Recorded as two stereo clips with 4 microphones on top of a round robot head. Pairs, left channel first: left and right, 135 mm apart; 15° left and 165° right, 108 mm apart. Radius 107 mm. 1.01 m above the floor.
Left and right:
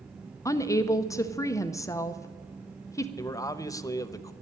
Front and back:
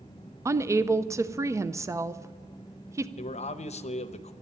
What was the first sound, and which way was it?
A woman speaking, 145° left.